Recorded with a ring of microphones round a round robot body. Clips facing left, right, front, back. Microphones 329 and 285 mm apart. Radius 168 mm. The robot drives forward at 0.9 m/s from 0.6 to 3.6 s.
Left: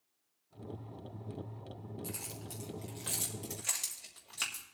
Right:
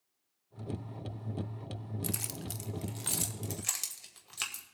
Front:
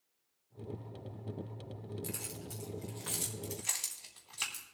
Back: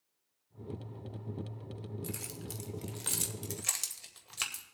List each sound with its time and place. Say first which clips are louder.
2.0 s keys jangling: right 5 dB, back 1 dB; 85° right, 0.8 m; by 4.7 s 160° right, 1.6 m